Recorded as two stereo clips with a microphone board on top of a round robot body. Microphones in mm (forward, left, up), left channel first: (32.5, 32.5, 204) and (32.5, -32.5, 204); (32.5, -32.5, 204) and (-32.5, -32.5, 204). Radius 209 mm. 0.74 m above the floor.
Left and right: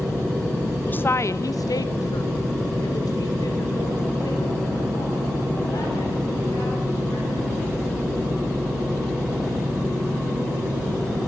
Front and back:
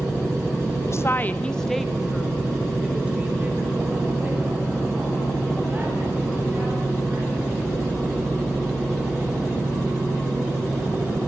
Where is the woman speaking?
30° left, 1.2 m; by 8.1 s 120° left, 11 m.